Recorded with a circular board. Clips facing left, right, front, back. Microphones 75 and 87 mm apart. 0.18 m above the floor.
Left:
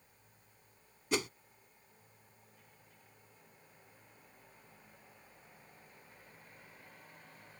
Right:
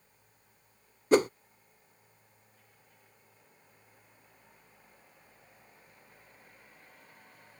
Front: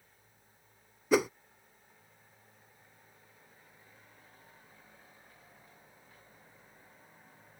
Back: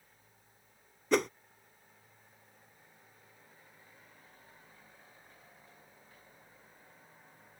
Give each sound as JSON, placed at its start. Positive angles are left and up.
{"t": 1.1, "sound": "a whoosh", "azimuth_deg": -80}